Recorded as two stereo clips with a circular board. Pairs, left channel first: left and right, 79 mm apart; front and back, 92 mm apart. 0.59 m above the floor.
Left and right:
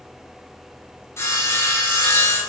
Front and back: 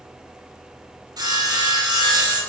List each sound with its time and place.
1.2 s sawing: 140° left, 1.7 m